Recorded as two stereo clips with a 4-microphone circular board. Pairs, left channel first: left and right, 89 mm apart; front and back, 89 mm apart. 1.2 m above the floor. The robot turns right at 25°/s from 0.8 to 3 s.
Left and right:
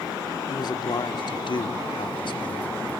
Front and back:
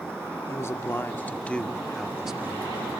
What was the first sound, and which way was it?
A man speaking, 60° left.